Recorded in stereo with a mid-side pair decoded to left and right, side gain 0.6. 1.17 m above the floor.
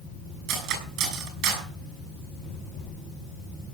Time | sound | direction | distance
0.5 | cutlery clinking | 70° right | 6.5 m